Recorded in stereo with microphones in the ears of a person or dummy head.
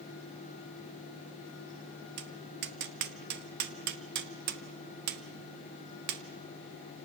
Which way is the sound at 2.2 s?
50° right (ahead or behind).